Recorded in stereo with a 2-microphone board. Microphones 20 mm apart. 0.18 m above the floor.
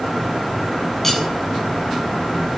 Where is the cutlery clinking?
10° left (ahead or behind), 0.7 m.